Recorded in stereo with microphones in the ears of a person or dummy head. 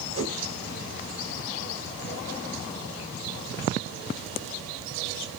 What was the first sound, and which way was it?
A whoosh, 70° right (ahead or behind).